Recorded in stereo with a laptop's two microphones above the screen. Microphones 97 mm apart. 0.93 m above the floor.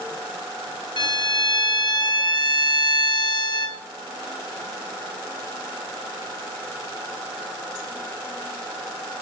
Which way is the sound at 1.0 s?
55° left (ahead or behind).